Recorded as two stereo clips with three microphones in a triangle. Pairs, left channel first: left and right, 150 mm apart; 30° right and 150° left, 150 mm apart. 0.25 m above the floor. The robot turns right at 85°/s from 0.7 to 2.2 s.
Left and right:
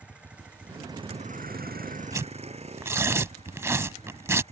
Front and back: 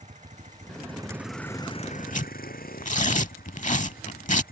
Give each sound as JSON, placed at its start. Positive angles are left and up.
{"t": 0.0, "sound": "a vehicle", "azimuth_deg": -170}
{"t": 2.1, "sound": "tearing paper", "azimuth_deg": -30}